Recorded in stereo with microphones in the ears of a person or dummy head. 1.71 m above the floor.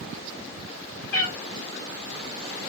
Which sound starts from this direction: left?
A cat meowing, at 1.1 s.